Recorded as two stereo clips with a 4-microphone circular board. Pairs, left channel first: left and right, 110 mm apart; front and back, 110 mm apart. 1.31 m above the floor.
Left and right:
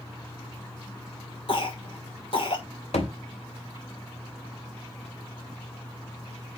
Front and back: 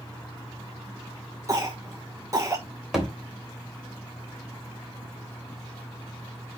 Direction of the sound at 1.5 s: 120° left.